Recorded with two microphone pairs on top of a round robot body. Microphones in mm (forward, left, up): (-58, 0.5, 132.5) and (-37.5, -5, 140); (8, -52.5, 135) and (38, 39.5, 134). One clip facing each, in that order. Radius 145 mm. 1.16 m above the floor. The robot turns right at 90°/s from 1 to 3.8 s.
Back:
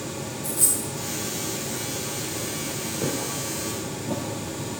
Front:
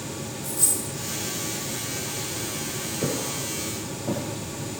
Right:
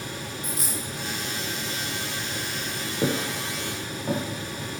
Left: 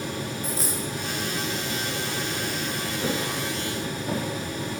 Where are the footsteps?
125° right, 7 m; by 4.2 s 50° right, 7.5 m.